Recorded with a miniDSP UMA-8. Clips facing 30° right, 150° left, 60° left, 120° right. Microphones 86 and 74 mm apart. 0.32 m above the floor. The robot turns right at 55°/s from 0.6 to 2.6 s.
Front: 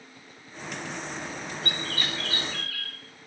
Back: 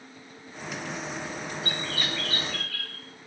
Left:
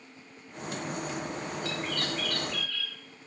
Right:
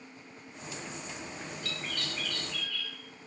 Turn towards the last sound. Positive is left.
turn(degrees=50)